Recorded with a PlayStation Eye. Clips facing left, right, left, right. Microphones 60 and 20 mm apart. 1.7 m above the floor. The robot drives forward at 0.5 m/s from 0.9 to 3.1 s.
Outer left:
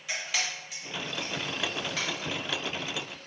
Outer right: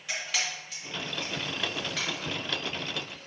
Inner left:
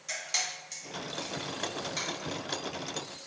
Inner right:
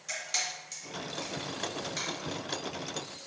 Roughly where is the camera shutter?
Centre.